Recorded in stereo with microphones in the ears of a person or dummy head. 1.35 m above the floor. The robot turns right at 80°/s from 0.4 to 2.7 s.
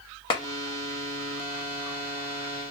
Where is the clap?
30° left (ahead or behind), 0.7 m; by 0.4 s 25° left (ahead or behind), 0.7 m.